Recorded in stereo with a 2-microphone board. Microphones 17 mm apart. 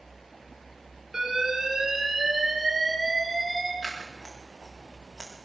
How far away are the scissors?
About 5.5 m.